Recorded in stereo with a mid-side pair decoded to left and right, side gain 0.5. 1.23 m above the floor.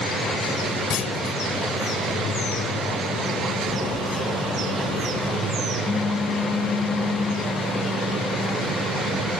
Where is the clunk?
60° left.